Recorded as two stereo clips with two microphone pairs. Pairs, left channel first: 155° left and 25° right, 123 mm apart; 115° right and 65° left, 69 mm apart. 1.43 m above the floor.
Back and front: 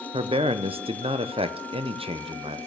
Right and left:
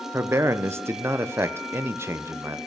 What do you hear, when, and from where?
0.1 s a man speaking: 15° left, 0.6 m